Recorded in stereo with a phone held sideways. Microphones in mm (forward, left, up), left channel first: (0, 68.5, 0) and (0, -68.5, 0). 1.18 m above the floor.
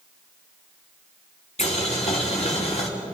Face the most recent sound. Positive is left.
turn(degrees=55)  # may be behind; listen again after turning